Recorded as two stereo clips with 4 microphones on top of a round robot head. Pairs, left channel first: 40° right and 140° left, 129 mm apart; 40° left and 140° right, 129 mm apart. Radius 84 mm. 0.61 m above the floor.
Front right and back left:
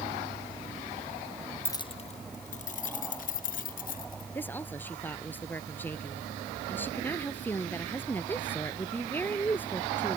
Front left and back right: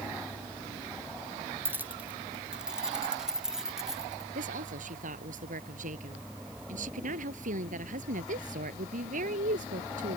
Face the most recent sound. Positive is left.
turn(degrees=-115)